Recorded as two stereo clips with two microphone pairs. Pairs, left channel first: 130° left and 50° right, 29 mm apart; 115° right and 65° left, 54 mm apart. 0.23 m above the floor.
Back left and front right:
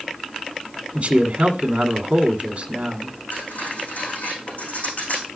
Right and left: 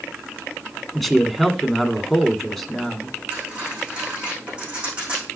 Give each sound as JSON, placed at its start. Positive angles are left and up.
{"t": 0.9, "sound": "a man speaking", "azimuth_deg": -30, "distance_m": 1.7}
{"t": 3.3, "sound": "cutlery clinking", "azimuth_deg": 135, "distance_m": 7.0}